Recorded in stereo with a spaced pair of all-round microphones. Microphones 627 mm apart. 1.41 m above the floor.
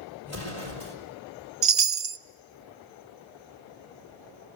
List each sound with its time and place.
0.2 s an explosion: 25° left (ahead or behind), 5 m
1.6 s a chime: 45° right (ahead or behind), 0.6 m